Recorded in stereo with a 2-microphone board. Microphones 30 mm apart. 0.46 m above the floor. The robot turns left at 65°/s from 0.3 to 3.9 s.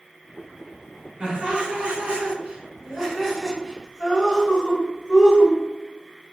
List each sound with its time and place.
1.2 s laughter: 30° right (ahead or behind), 1.2 m; by 5.6 s 25° left (ahead or behind), 1.2 m